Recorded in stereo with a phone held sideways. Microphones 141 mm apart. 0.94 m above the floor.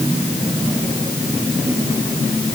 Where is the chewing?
No chewing in this recording.